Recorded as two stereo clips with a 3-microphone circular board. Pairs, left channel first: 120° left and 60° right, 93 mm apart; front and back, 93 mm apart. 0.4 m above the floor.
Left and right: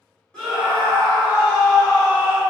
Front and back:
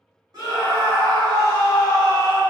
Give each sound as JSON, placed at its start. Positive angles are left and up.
{"t": 0.3, "sound": "a scream", "azimuth_deg": -165, "distance_m": 1.8}